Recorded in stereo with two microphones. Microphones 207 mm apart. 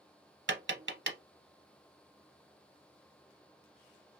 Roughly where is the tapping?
Right.